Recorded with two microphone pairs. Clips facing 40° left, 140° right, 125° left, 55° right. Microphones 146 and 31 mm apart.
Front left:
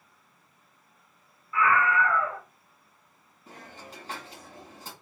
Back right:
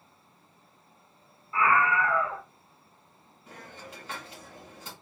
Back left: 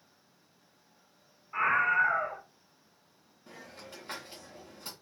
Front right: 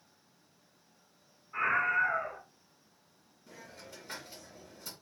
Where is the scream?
170° left, 1.9 m.